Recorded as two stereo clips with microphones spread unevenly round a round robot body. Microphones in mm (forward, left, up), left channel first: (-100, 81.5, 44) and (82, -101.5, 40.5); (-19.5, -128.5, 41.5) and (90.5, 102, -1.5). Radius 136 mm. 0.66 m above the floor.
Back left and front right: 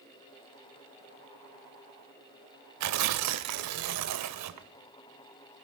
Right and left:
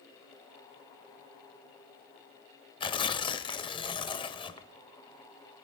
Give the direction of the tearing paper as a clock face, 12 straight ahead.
2 o'clock.